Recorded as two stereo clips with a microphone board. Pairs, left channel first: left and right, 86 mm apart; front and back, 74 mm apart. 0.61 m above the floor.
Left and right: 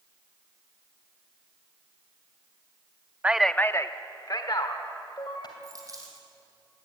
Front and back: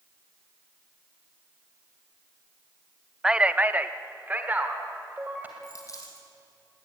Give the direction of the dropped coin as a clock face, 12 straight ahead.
1 o'clock.